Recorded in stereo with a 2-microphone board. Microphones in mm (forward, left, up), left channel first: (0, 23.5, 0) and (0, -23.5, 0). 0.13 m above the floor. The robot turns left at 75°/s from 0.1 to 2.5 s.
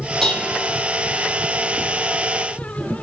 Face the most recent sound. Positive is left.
turn(degrees=5)